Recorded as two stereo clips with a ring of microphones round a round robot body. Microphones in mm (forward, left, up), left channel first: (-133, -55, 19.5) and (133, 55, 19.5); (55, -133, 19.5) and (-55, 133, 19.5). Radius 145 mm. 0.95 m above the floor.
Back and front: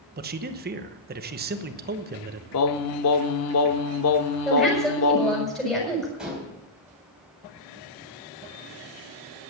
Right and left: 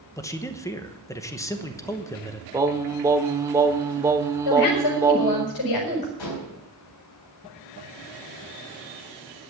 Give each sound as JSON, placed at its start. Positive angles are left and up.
{"t": 0.2, "sound": "a man speaking", "azimuth_deg": 5, "distance_m": 0.9}
{"t": 2.5, "sound": "singing", "azimuth_deg": -170, "distance_m": 0.7}
{"t": 4.5, "sound": "a woman speaking", "azimuth_deg": -70, "distance_m": 6.0}
{"t": 6.2, "sound": "dishes clattering", "azimuth_deg": -65, "distance_m": 3.5}